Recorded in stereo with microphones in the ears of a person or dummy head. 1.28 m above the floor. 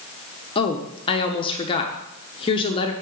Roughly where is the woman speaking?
Left.